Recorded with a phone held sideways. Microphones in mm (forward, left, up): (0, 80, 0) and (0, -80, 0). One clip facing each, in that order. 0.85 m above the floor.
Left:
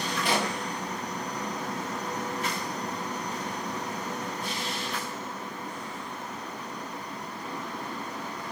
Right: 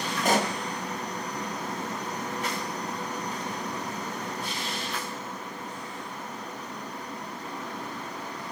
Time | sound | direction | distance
0.2 | a pop | 45° right (ahead or behind) | 1.2 m